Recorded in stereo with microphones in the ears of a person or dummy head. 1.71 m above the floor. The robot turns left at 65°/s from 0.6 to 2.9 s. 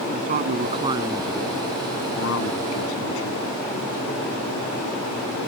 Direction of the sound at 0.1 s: 135° right.